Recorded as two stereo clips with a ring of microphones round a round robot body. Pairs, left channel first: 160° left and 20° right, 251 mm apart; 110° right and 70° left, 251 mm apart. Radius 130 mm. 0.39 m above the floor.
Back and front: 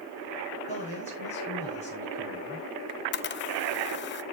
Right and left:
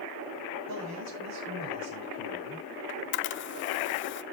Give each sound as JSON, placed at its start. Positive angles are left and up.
{"t": 0.7, "sound": "a man speaking", "azimuth_deg": 90, "distance_m": 7.0}
{"t": 2.9, "sound": "a camera shutter", "azimuth_deg": -155, "distance_m": 0.7}